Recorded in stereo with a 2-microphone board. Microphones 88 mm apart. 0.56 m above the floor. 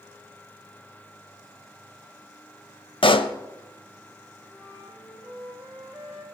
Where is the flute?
5° right (ahead or behind), 4.5 m.